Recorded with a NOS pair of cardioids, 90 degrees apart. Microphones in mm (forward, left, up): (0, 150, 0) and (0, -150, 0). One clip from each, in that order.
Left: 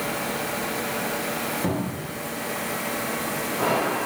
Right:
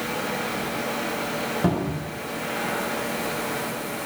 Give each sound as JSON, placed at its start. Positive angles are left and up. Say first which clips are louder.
{"t": 1.6, "sound": "a cupboard door", "louder": "right 2 dB", "azimuth_deg": -25, "distance_m": 0.8}